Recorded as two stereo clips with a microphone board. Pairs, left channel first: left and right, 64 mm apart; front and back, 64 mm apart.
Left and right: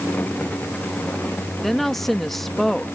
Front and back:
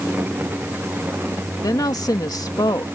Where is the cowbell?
I don't hear a cowbell.